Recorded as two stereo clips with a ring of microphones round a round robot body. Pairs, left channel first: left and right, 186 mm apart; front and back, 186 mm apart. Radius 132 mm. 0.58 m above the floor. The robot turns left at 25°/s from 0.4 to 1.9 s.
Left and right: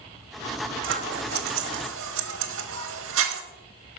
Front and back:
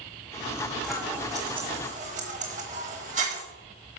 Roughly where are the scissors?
Right.